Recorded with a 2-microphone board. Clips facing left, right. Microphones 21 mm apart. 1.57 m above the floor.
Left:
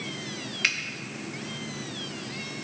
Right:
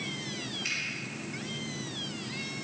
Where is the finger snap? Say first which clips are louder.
Left 9 dB; 80° left, 1.2 m.